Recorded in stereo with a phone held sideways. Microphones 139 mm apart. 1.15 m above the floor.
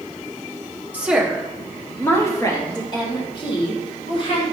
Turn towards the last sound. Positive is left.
turn(degrees=40)  # may be behind; listen again after turning